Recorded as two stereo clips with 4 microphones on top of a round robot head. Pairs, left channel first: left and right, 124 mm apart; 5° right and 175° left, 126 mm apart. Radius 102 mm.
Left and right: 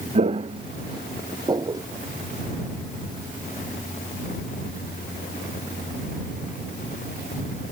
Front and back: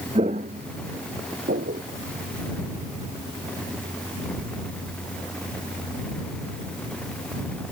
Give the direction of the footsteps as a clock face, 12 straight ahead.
4 o'clock.